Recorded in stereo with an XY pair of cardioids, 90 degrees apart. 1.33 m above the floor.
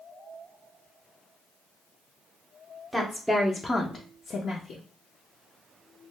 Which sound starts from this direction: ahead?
A woman speaking, at 2.9 s.